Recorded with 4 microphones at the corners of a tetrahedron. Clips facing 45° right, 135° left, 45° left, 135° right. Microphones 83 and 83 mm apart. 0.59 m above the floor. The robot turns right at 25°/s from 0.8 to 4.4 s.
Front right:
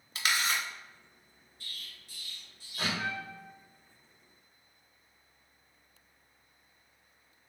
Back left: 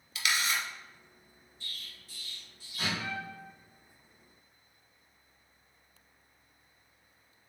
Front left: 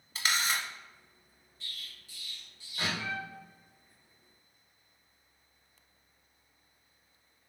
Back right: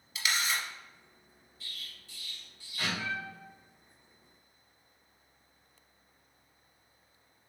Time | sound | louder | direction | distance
0.1 | a camera shutter | front right 1 dB, front left 1 dB | straight ahead | 0.9 m
1.6 | an explosion | back left 1 dB, even | 50° right | 1.6 m
3.0 | a trumpet | front right 2 dB, back right 1 dB | 35° right | 1.5 m